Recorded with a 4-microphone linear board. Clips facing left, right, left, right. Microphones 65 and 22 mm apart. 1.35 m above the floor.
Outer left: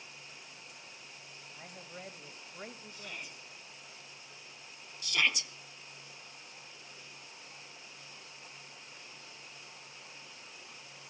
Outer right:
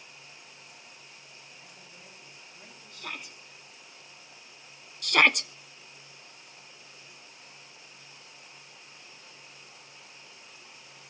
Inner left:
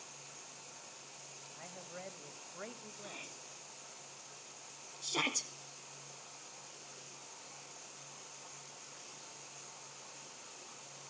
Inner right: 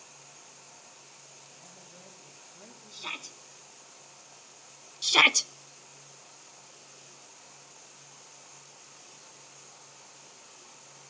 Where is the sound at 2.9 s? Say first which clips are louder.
Outer right 5 dB, inner right 9 dB; 80° right, 3.5 m.